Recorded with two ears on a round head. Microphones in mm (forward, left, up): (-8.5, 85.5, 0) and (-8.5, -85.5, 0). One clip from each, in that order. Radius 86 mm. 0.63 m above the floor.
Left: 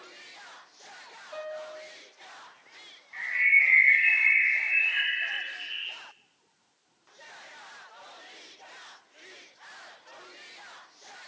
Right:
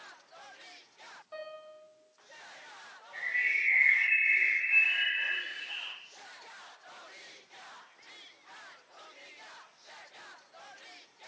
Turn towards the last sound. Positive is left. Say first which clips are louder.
# left 8 dB
turn(degrees=25)  # may be behind; listen again after turning